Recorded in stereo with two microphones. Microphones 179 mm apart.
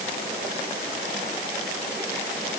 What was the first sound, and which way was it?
Only background noise.